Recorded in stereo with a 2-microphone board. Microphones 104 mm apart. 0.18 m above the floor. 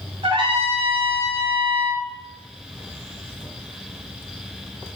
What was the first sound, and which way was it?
A trumpet, 75° right (ahead or behind).